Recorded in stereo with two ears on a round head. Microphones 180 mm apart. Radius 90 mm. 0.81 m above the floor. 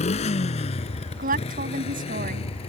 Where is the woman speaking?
45° right (ahead or behind).